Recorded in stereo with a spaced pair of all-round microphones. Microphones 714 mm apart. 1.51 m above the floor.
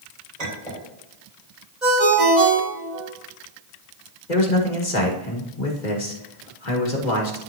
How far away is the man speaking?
About 1.8 m.